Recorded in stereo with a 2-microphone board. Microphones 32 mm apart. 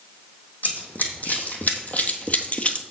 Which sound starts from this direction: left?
Running footsteps, at 0.6 s.